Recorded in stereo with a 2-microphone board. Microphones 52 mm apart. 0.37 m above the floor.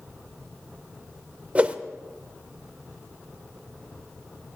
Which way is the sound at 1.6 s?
25° right (ahead or behind).